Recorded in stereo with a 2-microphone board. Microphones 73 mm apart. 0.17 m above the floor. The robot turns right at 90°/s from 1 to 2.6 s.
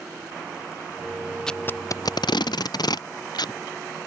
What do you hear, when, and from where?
1.5 s tape being pulled: 10° left (ahead or behind); by 4.1 s 70° left (ahead or behind)